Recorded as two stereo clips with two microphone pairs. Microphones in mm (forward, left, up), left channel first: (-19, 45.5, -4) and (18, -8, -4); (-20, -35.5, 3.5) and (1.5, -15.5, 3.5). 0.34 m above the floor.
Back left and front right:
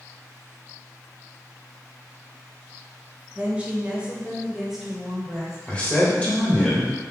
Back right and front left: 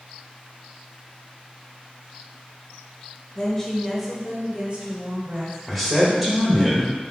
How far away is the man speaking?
About 1.2 m.